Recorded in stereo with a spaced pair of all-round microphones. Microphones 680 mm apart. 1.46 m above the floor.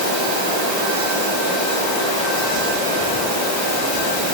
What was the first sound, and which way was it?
Only background noise.